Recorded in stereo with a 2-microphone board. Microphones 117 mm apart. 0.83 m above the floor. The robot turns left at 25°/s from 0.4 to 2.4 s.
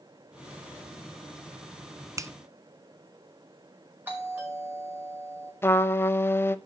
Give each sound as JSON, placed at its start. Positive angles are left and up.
{"t": 2.2, "sound": "a finger snap", "side_deg": -25, "distance_m": 0.5}
{"t": 4.1, "sound": "a doorbell", "side_deg": -15, "distance_m": 5.0}
{"t": 5.6, "sound": "a trumpet", "side_deg": 20, "distance_m": 0.6}